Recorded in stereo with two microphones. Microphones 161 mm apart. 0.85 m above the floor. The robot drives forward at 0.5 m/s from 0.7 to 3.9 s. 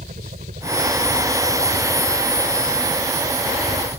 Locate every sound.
0.0 s a helicopter: 55° right (ahead or behind)